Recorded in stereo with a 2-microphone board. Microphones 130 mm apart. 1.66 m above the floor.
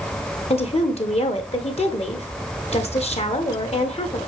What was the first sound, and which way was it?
A woman speaking, 55° left (ahead or behind).